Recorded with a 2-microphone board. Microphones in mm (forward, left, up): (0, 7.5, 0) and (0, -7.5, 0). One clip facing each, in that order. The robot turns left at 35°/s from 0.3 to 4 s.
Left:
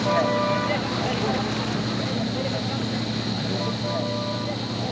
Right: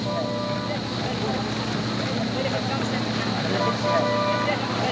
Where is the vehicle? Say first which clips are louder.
Left 5 dB; 40° left (ahead or behind); by 4.9 s 85° right.